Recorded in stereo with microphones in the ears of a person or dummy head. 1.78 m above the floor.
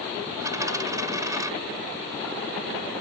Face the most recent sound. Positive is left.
turn(degrees=-15)  # may be behind; listen again after turning